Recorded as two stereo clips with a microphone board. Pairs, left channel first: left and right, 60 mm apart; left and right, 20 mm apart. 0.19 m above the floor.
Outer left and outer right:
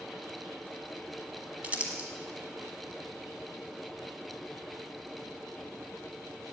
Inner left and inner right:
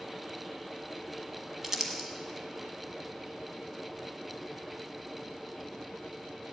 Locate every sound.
1.6 s crumpling: 25° right (ahead or behind), 1.3 m